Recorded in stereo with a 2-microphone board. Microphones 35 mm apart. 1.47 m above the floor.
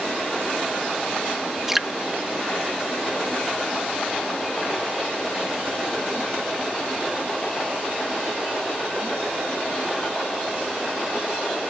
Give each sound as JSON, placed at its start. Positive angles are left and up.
{"t": 1.7, "sound": "dripping", "side_deg": -10}